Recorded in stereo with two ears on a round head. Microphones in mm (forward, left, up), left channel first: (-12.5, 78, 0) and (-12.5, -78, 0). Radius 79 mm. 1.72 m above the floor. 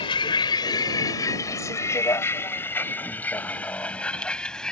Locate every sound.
0.0 s a vehicle: 30° left (ahead or behind); by 4.7 s 5° left (ahead or behind)